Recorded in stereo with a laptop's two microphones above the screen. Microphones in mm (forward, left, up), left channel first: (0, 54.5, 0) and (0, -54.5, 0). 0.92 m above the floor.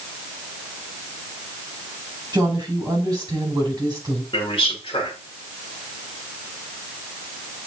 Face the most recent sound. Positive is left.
turn(degrees=55)  # may be behind; listen again after turning